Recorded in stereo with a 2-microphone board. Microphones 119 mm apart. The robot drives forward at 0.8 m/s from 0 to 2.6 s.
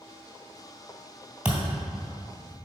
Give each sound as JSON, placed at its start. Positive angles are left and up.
{"t": 1.4, "sound": "a thud", "side_deg": -10, "distance_m": 1.9}